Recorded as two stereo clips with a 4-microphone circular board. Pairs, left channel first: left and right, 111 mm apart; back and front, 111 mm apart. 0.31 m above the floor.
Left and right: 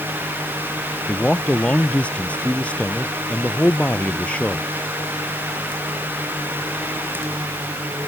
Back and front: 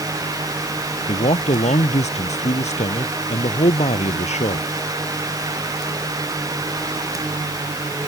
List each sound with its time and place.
1.1 s a man speaking: 170° left